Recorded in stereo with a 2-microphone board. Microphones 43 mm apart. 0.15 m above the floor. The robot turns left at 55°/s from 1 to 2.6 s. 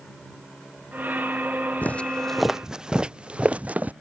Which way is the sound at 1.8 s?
40° left (ahead or behind).